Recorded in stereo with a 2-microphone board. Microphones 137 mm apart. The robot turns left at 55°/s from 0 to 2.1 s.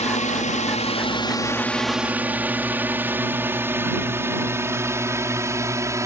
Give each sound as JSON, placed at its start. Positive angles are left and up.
{"t": 0.0, "sound": "a drone", "side_deg": 55}